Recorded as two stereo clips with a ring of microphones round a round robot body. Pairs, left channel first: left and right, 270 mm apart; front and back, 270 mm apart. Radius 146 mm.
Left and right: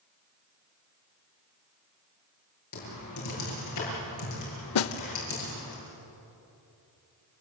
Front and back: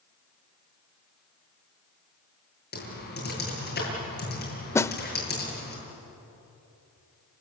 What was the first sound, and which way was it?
Typing on a keyboard, 55° left.